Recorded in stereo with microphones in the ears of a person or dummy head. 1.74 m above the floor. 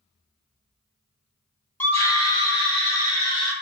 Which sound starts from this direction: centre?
A scream, at 1.8 s.